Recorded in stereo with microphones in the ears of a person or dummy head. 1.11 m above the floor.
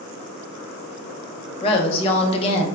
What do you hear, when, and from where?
1.6 s a woman speaking: 30° left (ahead or behind), 0.6 m